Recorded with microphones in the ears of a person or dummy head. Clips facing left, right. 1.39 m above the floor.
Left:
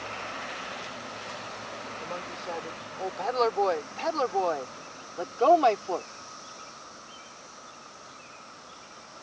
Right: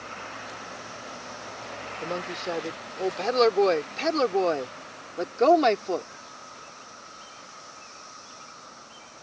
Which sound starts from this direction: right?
A woman speaking, at 2.0 s.